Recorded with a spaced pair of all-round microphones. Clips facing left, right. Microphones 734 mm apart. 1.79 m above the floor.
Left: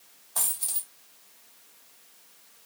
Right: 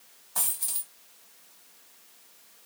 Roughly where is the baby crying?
No baby crying in this recording.